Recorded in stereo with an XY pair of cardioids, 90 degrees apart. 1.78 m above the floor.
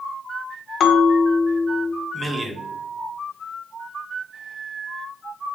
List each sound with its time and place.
0.8 s a bell: 70° left, 0.6 m
2.1 s a man speaking: 30° right, 0.9 m